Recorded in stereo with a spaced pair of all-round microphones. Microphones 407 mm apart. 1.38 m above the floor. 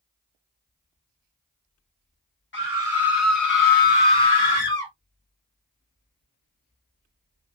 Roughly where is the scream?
Left.